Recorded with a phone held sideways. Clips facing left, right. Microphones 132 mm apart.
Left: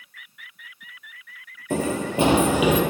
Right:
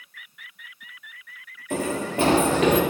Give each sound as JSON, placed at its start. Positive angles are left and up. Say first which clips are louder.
{"t": 1.7, "sound": "running footsteps", "louder": "left 2 dB", "side_deg": 30, "distance_m": 1.5}